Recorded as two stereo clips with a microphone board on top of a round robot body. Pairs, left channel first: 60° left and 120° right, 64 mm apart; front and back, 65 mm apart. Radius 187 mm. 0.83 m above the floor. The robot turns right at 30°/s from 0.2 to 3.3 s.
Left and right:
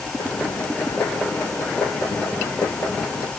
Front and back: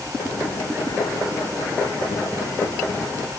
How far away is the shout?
No shout in this recording.